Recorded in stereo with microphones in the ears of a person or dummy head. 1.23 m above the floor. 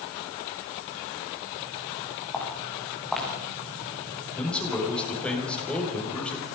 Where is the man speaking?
5° left (ahead or behind), 6 m.